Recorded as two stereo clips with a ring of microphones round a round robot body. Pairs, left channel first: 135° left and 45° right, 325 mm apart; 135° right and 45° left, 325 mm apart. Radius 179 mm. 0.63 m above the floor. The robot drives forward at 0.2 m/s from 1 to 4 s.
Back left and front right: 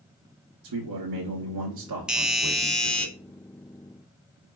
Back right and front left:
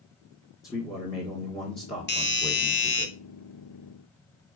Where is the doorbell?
130° right, 1.4 m; by 3.1 s 140° right, 1.5 m.